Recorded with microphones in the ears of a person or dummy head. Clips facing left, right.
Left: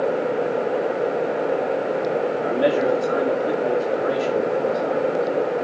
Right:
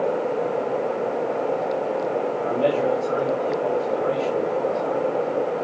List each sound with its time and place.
2.4 s a man speaking: 15° left (ahead or behind), 4.5 m